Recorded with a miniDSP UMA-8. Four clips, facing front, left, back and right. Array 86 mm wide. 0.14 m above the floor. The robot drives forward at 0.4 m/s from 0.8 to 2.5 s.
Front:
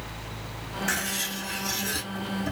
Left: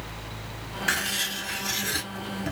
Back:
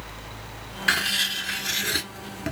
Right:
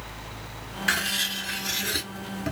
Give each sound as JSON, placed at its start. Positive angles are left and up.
{"t": 0.9, "sound": "writing", "azimuth_deg": -175, "distance_m": 0.6}